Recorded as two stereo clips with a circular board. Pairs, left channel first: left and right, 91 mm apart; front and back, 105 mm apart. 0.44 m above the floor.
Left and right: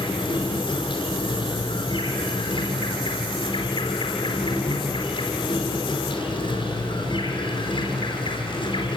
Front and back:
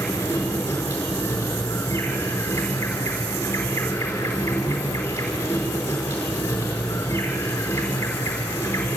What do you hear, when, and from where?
0.0 s an insect: 70° left, 4.5 m